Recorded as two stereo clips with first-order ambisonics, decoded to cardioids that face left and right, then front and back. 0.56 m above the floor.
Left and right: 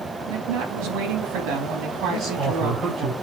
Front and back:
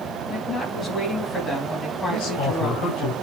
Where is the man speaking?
30° right, 7 m.